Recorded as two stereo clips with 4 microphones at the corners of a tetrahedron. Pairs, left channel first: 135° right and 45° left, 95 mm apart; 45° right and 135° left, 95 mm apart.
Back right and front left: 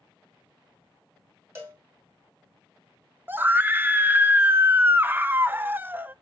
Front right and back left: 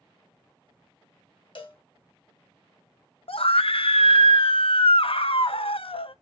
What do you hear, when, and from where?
1.6 s a cowbell: 15° right, 2.5 m
3.3 s a scream: 25° right, 0.6 m